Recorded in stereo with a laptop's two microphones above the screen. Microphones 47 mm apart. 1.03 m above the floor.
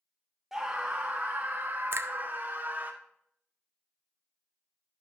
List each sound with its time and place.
0.5 s a scream: 5° right (ahead or behind), 0.6 m; by 2.9 s 35° right (ahead or behind), 2 m
1.9 s a finger snap: 55° right (ahead or behind), 0.6 m